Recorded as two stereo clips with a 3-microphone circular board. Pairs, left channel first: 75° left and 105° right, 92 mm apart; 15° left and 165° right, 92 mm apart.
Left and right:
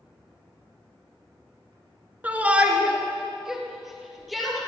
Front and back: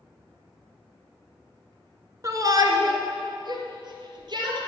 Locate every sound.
2.2 s a shout: 165° right, 2 m; by 4.6 s 165° left, 4.5 m